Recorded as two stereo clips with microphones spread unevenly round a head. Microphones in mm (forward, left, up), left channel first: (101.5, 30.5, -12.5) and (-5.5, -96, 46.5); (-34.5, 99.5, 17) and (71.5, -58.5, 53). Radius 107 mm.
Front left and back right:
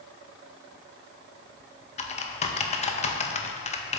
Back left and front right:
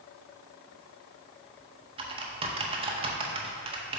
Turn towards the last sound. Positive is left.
turn(degrees=-10)